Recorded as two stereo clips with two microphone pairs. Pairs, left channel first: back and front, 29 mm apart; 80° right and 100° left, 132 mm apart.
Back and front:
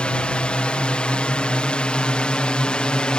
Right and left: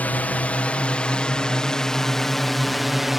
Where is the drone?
155° right; by 3.2 s 175° right.